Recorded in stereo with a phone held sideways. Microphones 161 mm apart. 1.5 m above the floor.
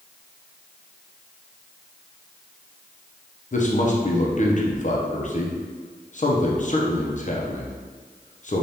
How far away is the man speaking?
About 0.5 m.